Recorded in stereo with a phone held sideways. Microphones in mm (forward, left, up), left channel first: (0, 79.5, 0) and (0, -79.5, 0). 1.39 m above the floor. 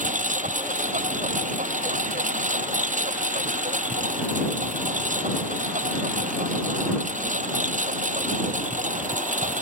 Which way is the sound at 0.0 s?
50° right (ahead or behind).